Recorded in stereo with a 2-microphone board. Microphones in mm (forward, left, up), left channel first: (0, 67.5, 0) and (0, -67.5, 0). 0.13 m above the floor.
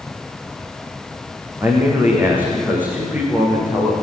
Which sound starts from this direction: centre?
A man speaking, at 1.6 s.